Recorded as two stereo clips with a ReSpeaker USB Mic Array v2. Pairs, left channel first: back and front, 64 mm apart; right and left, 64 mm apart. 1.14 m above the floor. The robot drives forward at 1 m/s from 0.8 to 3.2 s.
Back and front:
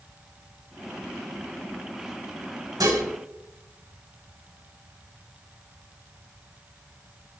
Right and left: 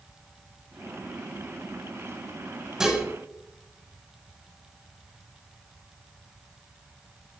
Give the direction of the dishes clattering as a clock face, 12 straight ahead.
12 o'clock.